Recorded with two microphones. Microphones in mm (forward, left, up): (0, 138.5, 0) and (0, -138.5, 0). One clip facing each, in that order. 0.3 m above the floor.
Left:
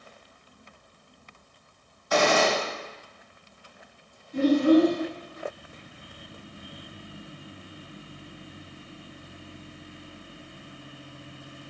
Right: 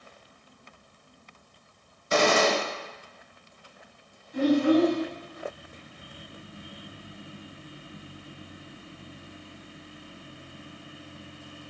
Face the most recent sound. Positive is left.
turn(degrees=35)  # may be behind; listen again after turning